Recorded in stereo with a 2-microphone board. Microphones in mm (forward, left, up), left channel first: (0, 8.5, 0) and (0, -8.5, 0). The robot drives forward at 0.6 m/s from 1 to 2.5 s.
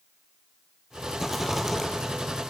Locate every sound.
1.2 s a rattle: 5° right (ahead or behind), 4 m; by 1.9 s 10° right (ahead or behind), 3.5 m